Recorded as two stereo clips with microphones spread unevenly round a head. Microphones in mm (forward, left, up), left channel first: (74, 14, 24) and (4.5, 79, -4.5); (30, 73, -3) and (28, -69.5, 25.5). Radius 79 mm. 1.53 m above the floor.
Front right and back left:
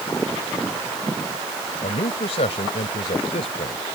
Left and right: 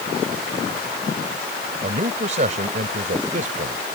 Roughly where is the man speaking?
Ahead right.